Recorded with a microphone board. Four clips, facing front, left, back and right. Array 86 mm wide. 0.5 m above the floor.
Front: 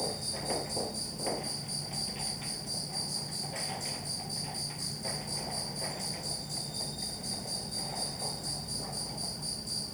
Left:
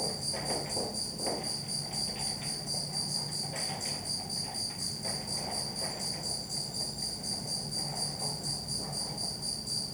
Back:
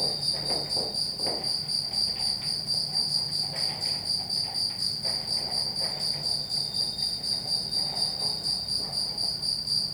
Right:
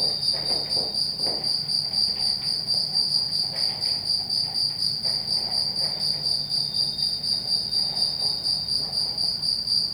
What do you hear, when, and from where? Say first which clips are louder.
0.0 s an insect: right 1 dB, even; 110° right